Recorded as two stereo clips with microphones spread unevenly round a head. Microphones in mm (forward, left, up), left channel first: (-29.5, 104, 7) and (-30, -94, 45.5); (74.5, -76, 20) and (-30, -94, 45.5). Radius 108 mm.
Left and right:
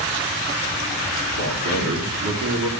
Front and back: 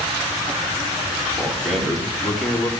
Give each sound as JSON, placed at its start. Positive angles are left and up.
{"t": 1.4, "sound": "a man speaking", "azimuth_deg": -80, "distance_m": 3.5}